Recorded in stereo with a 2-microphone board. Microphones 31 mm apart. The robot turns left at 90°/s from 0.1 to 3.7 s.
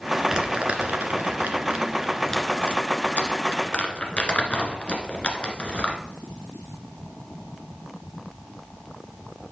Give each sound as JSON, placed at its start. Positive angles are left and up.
{"t": 0.3, "sound": "crumpling", "side_deg": -15, "distance_m": 1.6}